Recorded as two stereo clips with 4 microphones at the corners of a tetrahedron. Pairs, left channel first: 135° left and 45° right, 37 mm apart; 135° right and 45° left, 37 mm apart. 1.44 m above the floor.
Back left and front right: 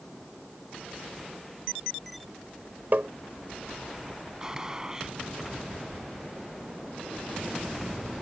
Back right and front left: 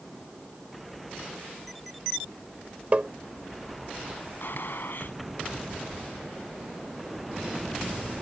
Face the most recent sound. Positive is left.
turn(degrees=-120)